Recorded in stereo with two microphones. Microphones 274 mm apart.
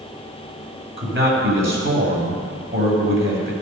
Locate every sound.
1.0 s a man speaking: 45° right (ahead or behind), 2 m